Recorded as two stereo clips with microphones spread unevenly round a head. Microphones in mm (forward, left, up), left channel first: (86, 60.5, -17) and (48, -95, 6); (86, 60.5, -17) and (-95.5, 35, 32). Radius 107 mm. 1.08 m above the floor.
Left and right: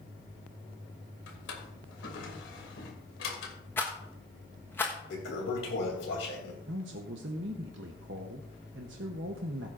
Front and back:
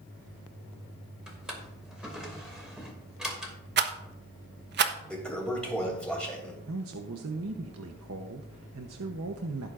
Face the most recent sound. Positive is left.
turn(degrees=-140)